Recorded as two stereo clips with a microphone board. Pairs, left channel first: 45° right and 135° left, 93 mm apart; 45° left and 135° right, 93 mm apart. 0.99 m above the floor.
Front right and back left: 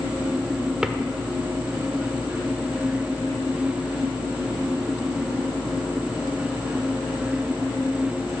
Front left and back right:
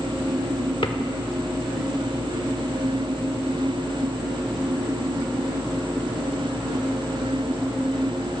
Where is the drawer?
50° left, 1.1 m.